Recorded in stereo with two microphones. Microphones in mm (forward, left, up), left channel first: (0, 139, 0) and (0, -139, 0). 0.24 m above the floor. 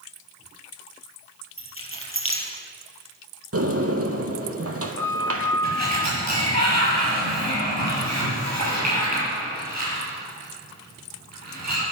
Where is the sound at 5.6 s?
75° right (ahead or behind), 6.5 m.